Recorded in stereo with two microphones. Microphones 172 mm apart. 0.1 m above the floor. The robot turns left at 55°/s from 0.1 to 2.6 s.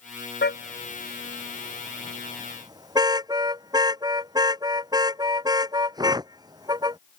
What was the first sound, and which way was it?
A car horn, 75° left (ahead or behind).